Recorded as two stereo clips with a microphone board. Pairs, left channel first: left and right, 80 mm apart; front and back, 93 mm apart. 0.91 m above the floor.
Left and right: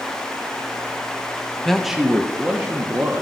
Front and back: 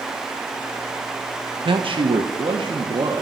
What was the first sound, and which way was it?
A man speaking, 175° left.